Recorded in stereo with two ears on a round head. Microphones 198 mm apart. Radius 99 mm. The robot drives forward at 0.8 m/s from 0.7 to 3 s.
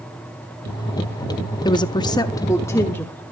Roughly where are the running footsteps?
I don't hear running footsteps.